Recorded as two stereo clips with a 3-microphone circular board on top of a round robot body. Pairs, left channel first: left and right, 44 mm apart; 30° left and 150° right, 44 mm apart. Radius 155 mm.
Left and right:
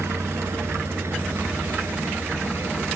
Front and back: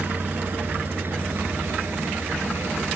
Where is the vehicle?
105° right; by 3.0 s 120° right.